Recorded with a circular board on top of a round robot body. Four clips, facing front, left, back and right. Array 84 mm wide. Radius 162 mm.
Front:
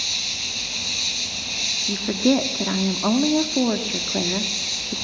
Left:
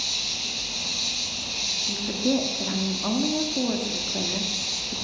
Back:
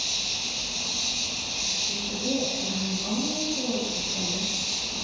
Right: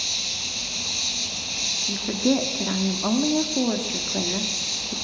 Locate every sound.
0.0 s an insect: 5° right, 5.5 m
1.9 s a woman speaking: 15° right, 1.6 m